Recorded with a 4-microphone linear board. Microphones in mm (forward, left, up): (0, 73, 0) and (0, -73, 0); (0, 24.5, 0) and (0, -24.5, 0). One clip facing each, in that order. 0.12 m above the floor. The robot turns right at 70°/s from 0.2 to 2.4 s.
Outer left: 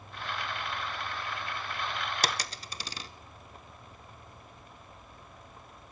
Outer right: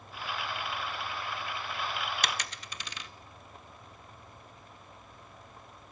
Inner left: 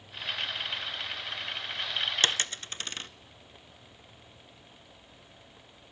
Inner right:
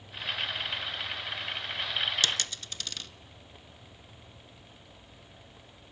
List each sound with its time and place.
2.2 s a dropped coin: 35° left (ahead or behind), 0.6 m